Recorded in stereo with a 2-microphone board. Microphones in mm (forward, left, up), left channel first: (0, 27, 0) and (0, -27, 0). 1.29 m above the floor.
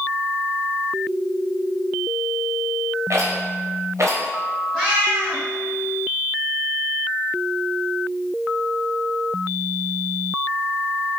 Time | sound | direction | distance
3.1 | a rattle | 60° right (ahead or behind) | 0.7 m
4.7 | a cat meowing | 10° left (ahead or behind) | 1.6 m